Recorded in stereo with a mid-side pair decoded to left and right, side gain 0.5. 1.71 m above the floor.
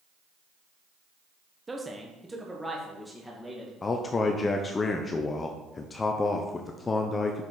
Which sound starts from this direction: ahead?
A man speaking, at 1.7 s.